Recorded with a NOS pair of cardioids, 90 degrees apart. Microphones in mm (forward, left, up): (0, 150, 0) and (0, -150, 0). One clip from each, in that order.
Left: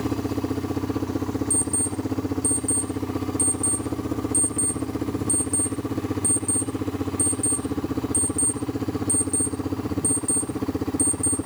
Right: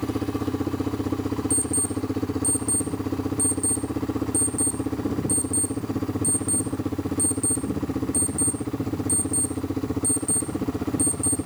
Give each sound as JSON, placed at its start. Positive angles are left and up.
{"t": 1.5, "sound": "an alarm clock", "azimuth_deg": 5, "distance_m": 3.5}